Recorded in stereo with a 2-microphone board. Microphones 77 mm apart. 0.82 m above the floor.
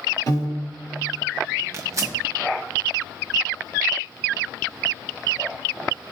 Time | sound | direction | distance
0.3 | a piano | 50° left (ahead or behind) | 1.5 m
1.7 | tearing paper | 40° right (ahead or behind) | 0.9 m